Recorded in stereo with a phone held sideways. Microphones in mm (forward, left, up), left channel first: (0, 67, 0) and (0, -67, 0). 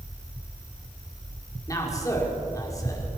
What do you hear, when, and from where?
1.7 s a man speaking: 25° left (ahead or behind), 5 m